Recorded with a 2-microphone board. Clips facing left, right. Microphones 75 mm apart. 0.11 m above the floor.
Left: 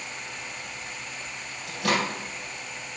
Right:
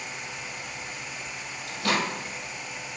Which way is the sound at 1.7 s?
55° left (ahead or behind).